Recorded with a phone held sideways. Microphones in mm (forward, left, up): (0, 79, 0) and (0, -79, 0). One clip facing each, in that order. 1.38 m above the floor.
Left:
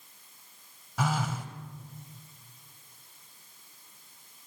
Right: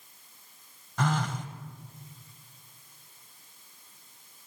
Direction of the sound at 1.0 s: 5° left (ahead or behind).